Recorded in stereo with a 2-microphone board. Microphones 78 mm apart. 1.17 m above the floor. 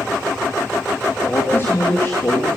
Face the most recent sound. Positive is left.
turn(degrees=30)  # may be behind; listen again after turning